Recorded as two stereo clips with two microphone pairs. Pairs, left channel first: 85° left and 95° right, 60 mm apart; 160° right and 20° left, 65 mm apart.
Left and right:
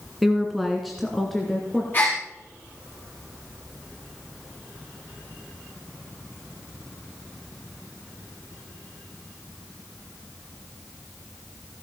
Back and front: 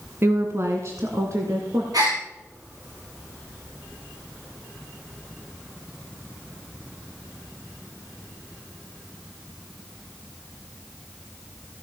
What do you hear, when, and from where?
0.2 s a woman speaking: 10° right, 1.5 m; by 1.8 s 5° right, 2.5 m
1.9 s a gasp: 25° left, 7.5 m